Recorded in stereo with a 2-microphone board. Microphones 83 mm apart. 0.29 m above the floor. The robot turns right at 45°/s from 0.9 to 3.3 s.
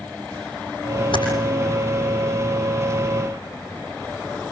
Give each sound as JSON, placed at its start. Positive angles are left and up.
{"t": 1.1, "sound": "typing on a keyboard", "side_deg": 80, "distance_m": 8.0}